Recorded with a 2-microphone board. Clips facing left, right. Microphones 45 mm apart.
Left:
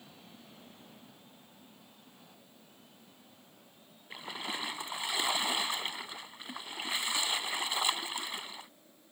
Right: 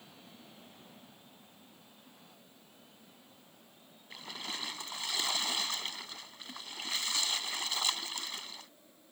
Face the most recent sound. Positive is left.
turn(degrees=20)  # may be behind; listen again after turning